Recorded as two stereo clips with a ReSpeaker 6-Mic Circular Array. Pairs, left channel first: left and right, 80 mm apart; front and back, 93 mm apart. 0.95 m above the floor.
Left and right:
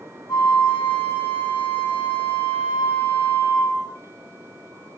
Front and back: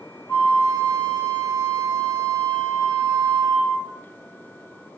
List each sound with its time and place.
0.3 s a flute: 65° left, 2.5 m